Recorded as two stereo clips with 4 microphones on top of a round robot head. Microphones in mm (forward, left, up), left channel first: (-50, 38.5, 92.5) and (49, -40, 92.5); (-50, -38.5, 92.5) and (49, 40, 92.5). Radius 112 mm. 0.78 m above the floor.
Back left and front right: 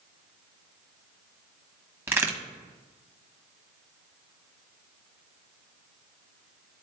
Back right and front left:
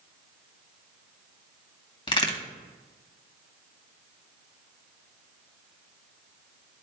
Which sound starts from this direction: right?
A crack, at 2.1 s.